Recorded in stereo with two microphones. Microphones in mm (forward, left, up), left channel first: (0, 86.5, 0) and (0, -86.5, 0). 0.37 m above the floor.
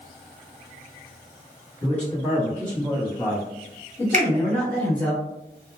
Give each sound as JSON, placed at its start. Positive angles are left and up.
{"t": 1.8, "sound": "a man speaking", "side_deg": 10, "distance_m": 1.6}
{"t": 4.1, "sound": "a finger snap", "side_deg": -40, "distance_m": 1.0}